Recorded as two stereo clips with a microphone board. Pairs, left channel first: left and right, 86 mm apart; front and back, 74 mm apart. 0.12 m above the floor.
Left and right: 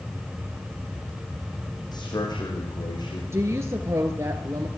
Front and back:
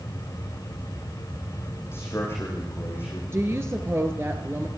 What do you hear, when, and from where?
1.9 s a man speaking: 55° left, 7.5 m; by 3.2 s 60° left, 7 m
3.3 s a woman speaking: 135° right, 2.5 m